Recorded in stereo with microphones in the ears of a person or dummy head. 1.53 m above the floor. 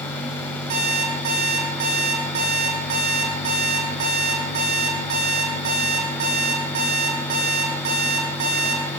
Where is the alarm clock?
35° right (ahead or behind), 1.8 m.